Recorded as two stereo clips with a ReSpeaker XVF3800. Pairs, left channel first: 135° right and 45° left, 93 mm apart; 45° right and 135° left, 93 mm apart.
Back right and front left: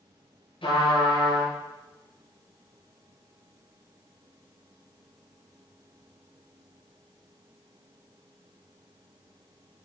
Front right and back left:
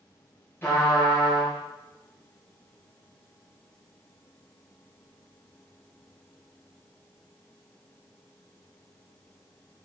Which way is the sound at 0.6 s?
110° right.